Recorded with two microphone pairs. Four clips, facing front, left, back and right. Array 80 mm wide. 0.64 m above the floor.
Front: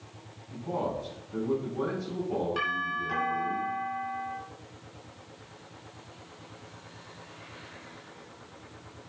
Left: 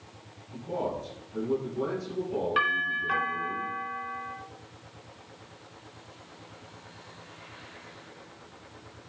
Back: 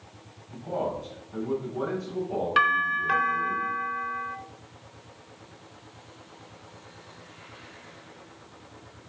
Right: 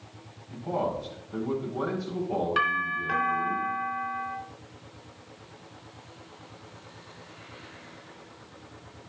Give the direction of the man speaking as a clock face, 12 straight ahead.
3 o'clock.